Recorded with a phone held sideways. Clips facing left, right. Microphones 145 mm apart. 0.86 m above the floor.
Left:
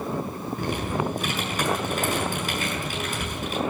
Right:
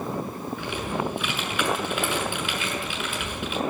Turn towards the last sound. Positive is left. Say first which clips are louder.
# left 2 dB
turn(degrees=40)  # may be behind; listen again after turning